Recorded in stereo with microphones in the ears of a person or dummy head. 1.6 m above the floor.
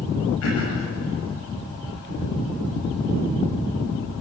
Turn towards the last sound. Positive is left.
turn(degrees=85)